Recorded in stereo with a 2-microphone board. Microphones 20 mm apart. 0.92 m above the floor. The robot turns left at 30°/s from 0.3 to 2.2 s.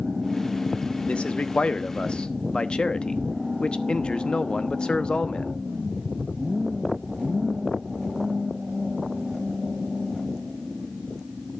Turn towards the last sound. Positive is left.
turn(degrees=50)